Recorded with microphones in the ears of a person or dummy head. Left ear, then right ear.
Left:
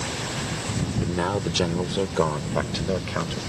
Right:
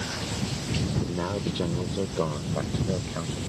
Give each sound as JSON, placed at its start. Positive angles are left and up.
{"t": 1.0, "sound": "a man speaking", "side_deg": 45}